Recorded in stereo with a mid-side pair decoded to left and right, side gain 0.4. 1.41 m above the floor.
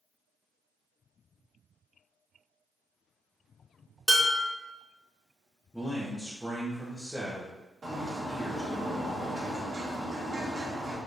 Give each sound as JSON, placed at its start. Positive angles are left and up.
{"t": 4.1, "sound": "dishes clattering", "azimuth_deg": -15, "distance_m": 1.8}
{"t": 5.7, "sound": "a man speaking", "azimuth_deg": 5, "distance_m": 1.2}
{"t": 7.8, "sound": "a bird", "azimuth_deg": -40, "distance_m": 1.6}